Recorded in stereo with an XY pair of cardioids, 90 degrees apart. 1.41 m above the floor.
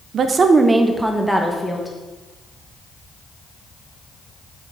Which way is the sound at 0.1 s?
70° right.